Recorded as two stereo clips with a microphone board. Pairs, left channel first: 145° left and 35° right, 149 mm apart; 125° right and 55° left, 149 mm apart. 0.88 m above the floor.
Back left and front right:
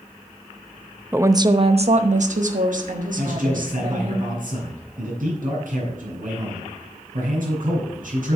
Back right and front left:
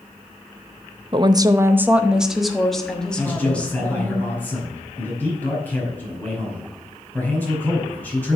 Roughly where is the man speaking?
Ahead right.